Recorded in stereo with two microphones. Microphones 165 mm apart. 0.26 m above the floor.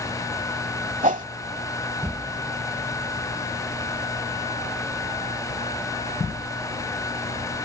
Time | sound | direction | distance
1.0 | a whoosh | 50° right (ahead or behind) | ?